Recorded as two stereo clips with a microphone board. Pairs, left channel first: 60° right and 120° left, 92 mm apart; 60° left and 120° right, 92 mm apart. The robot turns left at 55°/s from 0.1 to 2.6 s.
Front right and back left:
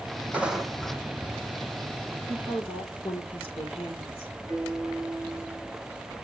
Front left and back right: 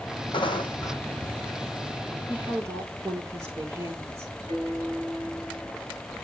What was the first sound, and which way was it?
Footsteps, 50° left.